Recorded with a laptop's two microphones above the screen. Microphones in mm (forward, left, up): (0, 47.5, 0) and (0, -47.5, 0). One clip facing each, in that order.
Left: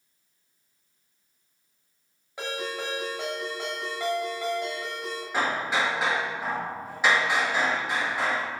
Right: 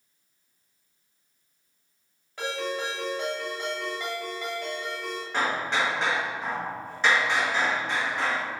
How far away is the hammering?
About 0.9 m.